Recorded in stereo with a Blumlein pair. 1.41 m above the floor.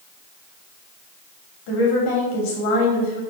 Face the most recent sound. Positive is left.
turn(degrees=45)